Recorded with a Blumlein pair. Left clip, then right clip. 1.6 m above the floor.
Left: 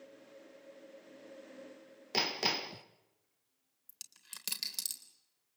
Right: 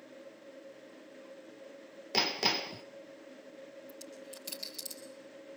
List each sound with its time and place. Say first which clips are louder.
2.1 s hammering: right 3 dB; 5° right, 0.9 m
3.9 s a dropped coin: right 5 dB; 30° left, 3.5 m